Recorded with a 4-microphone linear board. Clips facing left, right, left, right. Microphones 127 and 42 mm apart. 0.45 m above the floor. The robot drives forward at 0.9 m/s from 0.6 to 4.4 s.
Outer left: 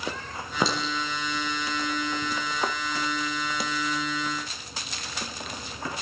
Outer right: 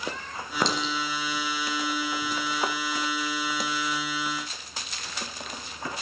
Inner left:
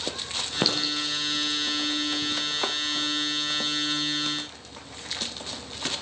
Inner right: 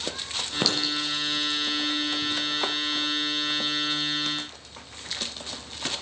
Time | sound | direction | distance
0.6 | a clink | 5° left (ahead or behind) | 5 m